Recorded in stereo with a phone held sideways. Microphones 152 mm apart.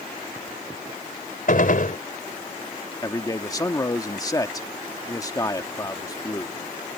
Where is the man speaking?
25° left (ahead or behind).